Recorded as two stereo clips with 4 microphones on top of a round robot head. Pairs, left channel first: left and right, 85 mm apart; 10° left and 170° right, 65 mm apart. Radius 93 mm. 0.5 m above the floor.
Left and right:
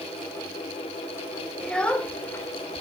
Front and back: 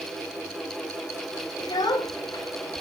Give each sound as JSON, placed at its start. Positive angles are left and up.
{"t": 1.6, "sound": "a child speaking", "azimuth_deg": 10, "distance_m": 1.7}